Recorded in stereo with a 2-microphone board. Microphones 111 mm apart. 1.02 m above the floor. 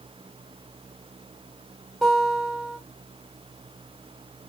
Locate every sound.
2.0 s a guitar: 5° right (ahead or behind), 2 m